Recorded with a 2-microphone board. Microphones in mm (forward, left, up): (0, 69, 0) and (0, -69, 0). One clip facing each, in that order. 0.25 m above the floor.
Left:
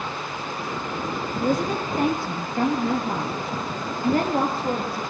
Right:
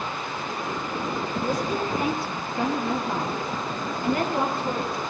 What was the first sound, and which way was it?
A woman speaking, 60° left (ahead or behind).